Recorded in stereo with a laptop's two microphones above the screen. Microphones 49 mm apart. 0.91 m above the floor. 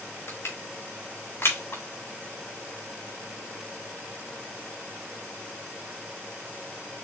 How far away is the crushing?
About 3 m.